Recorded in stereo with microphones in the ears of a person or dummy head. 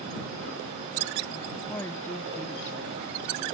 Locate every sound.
1.7 s a woman speaking: 15° left (ahead or behind)